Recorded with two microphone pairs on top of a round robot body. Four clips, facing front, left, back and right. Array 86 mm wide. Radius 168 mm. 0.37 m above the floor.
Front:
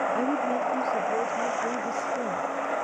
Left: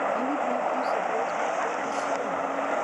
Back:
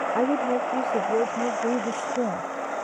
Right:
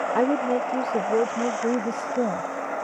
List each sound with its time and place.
0.1 s a woman speaking: 110° right; by 2.5 s 115° right